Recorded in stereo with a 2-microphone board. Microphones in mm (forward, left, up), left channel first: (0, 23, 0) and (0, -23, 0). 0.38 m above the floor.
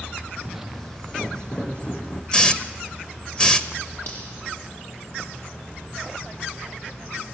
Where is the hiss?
20° left (ahead or behind), 1.0 m.